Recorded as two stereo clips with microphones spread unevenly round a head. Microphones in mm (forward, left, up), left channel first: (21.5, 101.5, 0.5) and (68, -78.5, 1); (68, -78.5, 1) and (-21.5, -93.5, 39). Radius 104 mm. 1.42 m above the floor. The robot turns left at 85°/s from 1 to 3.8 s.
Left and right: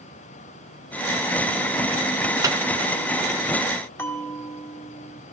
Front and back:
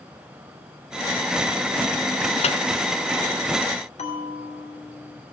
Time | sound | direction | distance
2.4 | a microwave | straight ahead | 1.0 m
4.0 | a bell | 25° left | 2.5 m